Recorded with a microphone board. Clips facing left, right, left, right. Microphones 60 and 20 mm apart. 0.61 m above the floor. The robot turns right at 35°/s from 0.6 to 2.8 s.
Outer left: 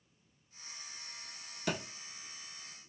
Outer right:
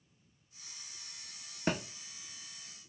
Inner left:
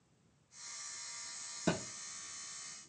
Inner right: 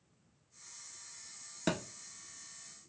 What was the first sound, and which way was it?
A thud, 40° right (ahead or behind).